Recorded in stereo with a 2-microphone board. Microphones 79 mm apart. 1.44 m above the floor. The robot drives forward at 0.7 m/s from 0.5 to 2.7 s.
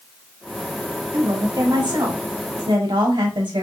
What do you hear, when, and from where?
1.1 s a woman speaking: 50° right (ahead or behind), 1.6 m; by 3.6 s 85° right, 1.2 m